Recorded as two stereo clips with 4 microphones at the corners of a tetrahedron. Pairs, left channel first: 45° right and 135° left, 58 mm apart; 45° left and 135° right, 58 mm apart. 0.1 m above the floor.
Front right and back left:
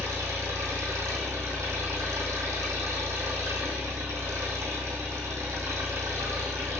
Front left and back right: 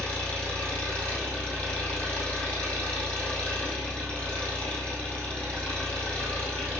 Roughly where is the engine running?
Behind left.